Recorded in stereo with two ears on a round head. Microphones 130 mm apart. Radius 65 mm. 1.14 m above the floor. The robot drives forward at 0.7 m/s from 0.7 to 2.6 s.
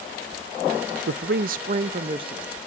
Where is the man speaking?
85° right, 0.6 m; by 2.5 s 30° right (ahead or behind), 1.2 m.